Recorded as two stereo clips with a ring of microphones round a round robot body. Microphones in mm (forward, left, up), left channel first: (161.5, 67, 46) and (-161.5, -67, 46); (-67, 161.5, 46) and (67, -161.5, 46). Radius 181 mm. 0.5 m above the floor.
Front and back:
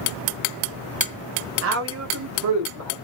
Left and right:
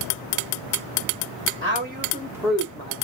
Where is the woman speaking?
115° right, 1.2 m; by 3.0 s 175° left, 1.0 m.